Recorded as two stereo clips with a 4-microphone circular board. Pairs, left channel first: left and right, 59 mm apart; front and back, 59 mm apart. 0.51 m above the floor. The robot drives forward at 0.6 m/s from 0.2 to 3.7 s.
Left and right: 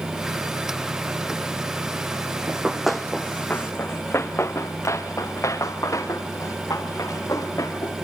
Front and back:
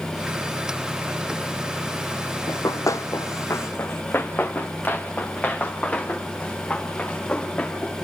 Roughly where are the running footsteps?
Ahead.